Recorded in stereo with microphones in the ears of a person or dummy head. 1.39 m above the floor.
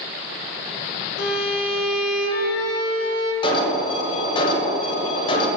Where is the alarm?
30° left (ahead or behind), 1.7 m.